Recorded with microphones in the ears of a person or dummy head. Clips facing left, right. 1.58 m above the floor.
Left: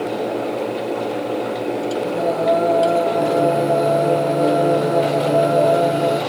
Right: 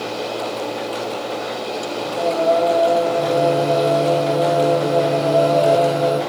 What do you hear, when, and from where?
2.0 s singing: 30° left (ahead or behind), 8.5 m